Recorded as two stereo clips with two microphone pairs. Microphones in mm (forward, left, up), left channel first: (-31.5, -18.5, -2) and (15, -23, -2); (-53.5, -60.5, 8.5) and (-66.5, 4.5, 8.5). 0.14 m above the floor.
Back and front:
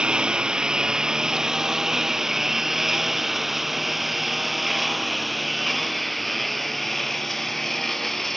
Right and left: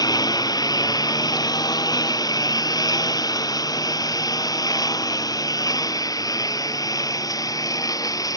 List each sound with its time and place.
0.0 s a lawn mower: 75° right; by 8.4 s 100° right